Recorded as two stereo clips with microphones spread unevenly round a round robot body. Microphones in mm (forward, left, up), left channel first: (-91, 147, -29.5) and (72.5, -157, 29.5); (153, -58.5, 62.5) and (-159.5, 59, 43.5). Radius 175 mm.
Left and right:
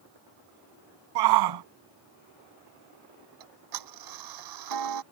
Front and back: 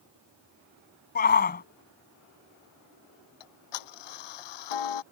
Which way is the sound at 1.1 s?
85° right.